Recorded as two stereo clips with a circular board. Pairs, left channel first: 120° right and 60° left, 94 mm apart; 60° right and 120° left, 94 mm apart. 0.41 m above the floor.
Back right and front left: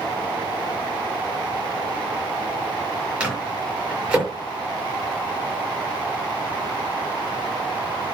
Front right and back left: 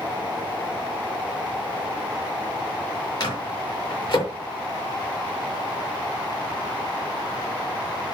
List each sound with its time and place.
3.2 s a microwave: 20° right, 6.5 m